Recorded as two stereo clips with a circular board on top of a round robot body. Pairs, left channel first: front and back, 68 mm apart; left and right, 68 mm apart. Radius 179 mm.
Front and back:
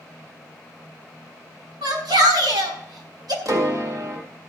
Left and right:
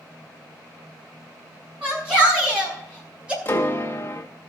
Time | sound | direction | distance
1.8 | a shout | 170° right | 5.5 m
3.5 | a piano | 150° left | 2.0 m